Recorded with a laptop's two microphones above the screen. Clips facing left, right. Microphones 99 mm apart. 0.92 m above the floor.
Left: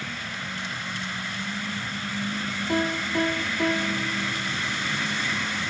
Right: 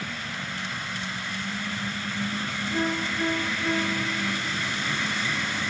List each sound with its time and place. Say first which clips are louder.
2.7 s a piano: left 3 dB; 65° left (ahead or behind), 6 m